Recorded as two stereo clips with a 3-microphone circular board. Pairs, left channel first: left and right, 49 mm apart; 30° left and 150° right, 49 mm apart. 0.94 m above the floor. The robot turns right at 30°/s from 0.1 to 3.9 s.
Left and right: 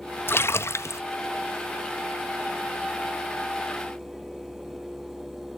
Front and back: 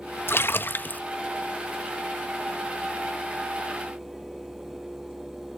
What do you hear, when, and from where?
0.3 s a splash: 60° left, 0.6 m; by 1.0 s 80° left, 0.6 m